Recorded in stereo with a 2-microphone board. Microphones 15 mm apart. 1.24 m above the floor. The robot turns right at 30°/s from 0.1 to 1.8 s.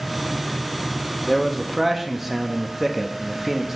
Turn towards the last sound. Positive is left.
turn(degrees=-10)  # may be behind; listen again after turning